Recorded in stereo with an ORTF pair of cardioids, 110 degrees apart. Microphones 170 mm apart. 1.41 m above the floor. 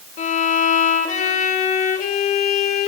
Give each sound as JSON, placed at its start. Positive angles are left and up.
{"t": 0.2, "sound": "a violin", "azimuth_deg": 50, "distance_m": 3.0}